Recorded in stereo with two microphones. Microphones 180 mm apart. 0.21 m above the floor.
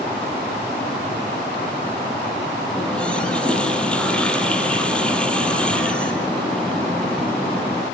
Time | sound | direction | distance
2.8 | a running tap | 5° left (ahead or behind) | 3.5 m